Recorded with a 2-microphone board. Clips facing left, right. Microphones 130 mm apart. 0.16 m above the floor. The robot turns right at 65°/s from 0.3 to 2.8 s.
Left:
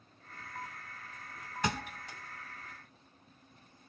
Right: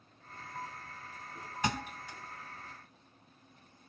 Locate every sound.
1.6 s a thud: 5° right (ahead or behind), 2 m; by 2.2 s 30° left (ahead or behind), 2 m